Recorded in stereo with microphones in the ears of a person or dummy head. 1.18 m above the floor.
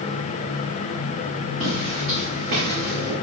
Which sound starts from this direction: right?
Footsteps, at 1.6 s.